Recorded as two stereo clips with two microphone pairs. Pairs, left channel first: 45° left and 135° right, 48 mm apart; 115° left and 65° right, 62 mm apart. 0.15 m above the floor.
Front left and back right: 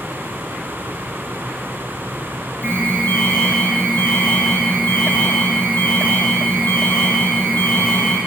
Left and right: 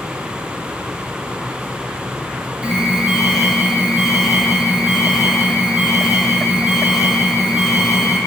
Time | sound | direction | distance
2.6 | an alarm | 20° left | 8 m